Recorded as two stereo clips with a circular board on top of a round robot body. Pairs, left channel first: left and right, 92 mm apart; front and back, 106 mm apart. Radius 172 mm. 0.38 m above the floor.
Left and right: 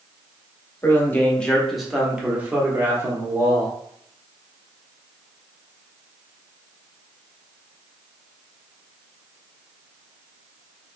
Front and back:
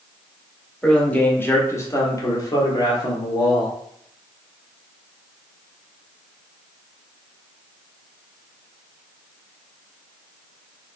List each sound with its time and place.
0.8 s a man speaking: 75° left, 1.2 m; by 3.8 s 40° right, 1.9 m